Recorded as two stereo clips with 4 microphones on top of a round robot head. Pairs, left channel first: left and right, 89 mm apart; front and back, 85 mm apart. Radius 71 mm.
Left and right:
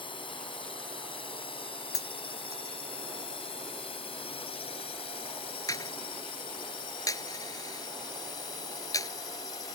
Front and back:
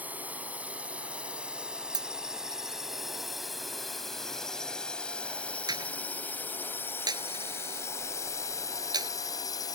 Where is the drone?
110° left; by 9.8 s 40° left.